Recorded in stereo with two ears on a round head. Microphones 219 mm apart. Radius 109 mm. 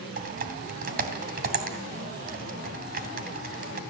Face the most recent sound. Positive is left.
turn(degrees=-40)  # may be behind; listen again after turning